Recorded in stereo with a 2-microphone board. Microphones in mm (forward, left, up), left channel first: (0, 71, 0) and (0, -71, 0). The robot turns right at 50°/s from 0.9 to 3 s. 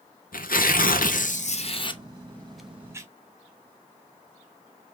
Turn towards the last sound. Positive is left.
turn(degrees=-160)